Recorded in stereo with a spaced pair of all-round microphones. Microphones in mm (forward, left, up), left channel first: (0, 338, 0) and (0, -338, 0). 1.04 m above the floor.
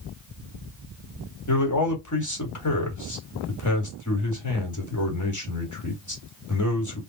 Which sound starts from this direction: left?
A man speaking, at 1.5 s.